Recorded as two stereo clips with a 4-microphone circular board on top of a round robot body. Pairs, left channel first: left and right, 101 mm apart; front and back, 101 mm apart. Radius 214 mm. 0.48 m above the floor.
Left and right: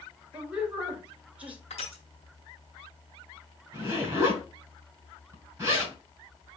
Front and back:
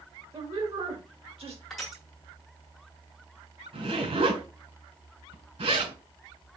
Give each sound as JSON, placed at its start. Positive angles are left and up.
{"t": 0.3, "sound": "a woman speaking", "azimuth_deg": -165, "distance_m": 2.0}
{"t": 1.7, "sound": "crushing", "azimuth_deg": 90, "distance_m": 1.5}
{"t": 3.7, "sound": "a zipper", "azimuth_deg": -160, "distance_m": 3.0}